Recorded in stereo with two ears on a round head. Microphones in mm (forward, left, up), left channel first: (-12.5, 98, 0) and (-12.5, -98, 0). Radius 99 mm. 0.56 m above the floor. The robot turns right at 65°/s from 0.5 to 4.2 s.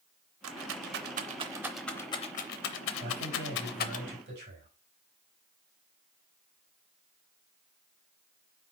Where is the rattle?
65° right (ahead or behind), 0.5 m; by 4.0 s 35° left (ahead or behind), 0.5 m.